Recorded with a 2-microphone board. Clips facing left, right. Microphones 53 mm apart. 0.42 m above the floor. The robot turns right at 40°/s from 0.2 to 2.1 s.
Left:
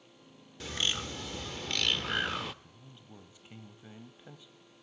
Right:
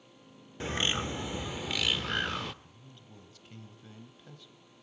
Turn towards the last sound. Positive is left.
turn(degrees=15)  # may be behind; listen again after turning